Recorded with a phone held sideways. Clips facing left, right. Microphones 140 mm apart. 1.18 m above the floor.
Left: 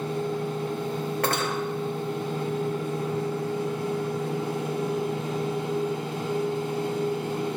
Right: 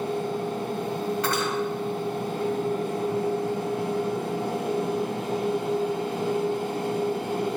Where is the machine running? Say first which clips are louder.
Right 1 dB; 65° right (ahead or behind), 2 m.